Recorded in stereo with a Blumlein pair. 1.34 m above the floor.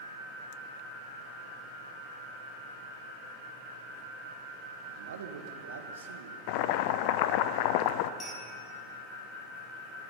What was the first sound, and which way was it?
A man speaking, 65° right.